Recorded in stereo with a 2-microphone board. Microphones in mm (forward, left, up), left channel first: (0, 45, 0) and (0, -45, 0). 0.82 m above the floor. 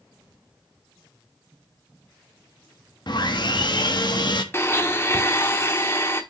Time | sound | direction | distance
3.1 | sawing | 55° left (ahead or behind) | 0.9 m
4.5 | a blender | 30° left (ahead or behind) | 0.9 m